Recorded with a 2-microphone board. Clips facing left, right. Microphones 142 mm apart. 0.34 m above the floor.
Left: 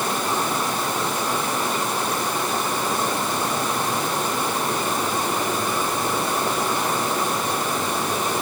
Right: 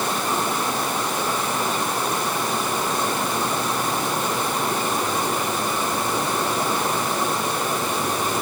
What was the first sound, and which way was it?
Only background noise.